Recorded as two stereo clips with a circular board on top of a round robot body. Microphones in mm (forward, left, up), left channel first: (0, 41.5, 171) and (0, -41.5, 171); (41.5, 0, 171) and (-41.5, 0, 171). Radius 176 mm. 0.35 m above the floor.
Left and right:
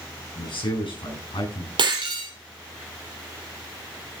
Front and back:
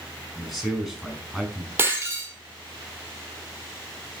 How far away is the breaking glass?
About 3.5 m.